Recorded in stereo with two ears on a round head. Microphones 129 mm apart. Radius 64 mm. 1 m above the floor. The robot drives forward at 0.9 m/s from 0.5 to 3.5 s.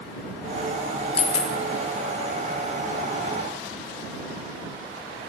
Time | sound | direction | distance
1.2 | a dropped coin | 40° left (ahead or behind) | 0.6 m